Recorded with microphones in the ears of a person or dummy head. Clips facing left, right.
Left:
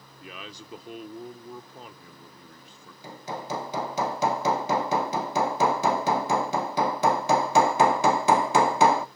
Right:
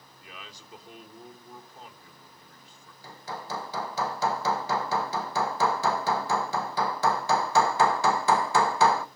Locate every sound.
0.2 s a man speaking: 55° left (ahead or behind), 1.1 m
3.0 s hammering: 20° left (ahead or behind), 0.9 m